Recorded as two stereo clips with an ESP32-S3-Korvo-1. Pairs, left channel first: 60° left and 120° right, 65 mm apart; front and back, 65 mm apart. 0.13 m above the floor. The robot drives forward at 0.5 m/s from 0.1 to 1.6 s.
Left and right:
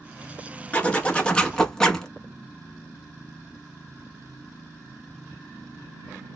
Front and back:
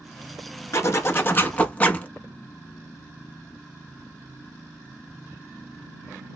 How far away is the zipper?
About 1.0 m.